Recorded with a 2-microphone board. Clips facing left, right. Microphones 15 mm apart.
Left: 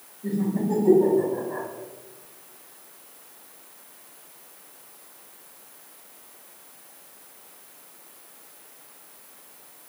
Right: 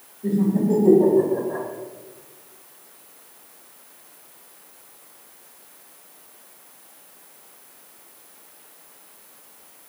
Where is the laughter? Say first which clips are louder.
Right 5 dB; 25° right (ahead or behind), 1.3 m; by 1.6 s 20° right (ahead or behind), 2.5 m.